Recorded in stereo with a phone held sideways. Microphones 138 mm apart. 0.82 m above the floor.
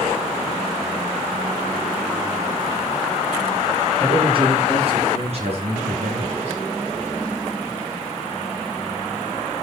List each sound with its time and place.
4.0 s a man speaking: 40° right (ahead or behind), 9.5 m; by 6.6 s 55° right (ahead or behind), 11 m